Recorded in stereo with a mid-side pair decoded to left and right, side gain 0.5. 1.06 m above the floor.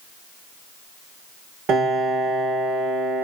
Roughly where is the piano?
Ahead right.